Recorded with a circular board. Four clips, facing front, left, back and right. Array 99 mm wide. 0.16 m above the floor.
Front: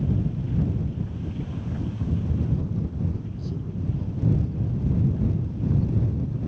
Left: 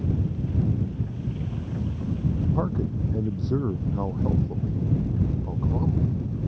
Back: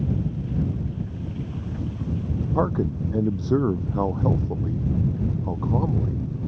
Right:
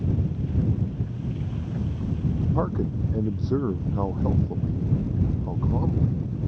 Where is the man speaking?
170° right.